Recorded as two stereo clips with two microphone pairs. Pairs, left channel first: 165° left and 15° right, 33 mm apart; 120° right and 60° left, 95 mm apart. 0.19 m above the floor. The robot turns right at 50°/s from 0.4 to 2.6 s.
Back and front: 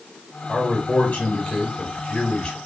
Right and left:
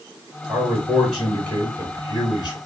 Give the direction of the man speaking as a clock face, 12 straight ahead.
8 o'clock.